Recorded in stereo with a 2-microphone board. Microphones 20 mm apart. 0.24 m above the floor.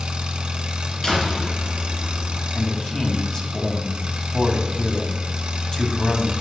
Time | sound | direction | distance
0.0 | an engine running | 55° right (ahead or behind) | 1.3 m
1.0 | a door slam | 35° left (ahead or behind) | 3 m
2.5 | a man speaking | 30° left (ahead or behind) | 1.8 m